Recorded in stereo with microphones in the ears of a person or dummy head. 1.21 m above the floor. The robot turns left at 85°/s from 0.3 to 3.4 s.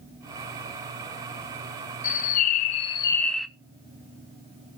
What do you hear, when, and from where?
2.0 s a bird: 115° left, 0.7 m; by 3.5 s straight ahead, 0.7 m